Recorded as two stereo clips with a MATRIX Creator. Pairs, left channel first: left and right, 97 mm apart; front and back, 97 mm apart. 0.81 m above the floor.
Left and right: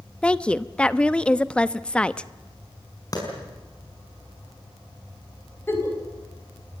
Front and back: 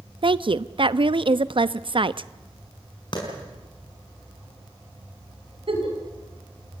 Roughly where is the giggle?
Behind left.